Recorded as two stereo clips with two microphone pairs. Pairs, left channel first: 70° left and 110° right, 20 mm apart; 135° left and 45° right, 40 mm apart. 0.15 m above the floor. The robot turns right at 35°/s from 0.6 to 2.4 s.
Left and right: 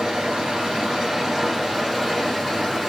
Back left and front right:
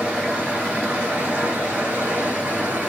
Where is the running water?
80° right, 1.7 m; by 2.9 s 20° right, 1.7 m.